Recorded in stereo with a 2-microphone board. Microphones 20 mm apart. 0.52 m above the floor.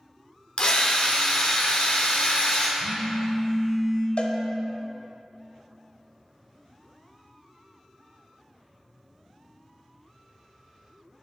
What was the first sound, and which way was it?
A drill, 50° left (ahead or behind).